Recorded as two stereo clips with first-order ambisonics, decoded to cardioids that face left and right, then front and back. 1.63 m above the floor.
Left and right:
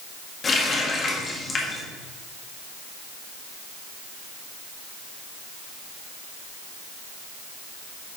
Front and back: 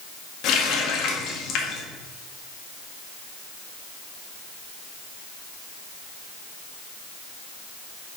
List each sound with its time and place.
0.4 s a running tap: 25° left, 1.5 m